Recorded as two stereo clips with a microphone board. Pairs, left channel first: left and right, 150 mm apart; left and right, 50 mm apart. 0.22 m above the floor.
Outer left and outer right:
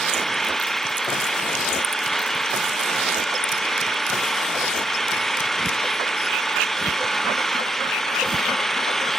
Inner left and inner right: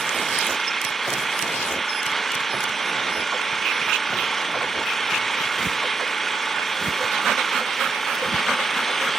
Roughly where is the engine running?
Centre.